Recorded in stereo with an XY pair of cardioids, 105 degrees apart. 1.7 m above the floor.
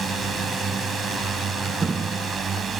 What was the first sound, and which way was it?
A drone, 50° right.